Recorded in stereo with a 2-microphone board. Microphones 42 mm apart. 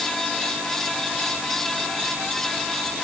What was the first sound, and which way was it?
Only background noise.